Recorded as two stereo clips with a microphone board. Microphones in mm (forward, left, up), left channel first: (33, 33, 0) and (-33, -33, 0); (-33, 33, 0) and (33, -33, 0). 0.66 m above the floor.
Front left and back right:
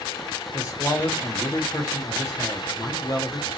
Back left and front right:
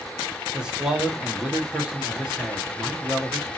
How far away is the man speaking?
About 1.4 m.